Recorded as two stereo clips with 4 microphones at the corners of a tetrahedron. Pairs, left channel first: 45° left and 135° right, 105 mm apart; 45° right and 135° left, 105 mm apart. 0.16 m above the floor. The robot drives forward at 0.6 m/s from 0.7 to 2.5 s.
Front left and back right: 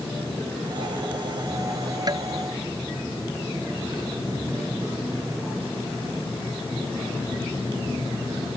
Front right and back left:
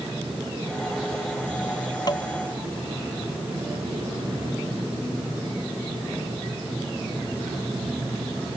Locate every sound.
2.1 s tapping: 90° right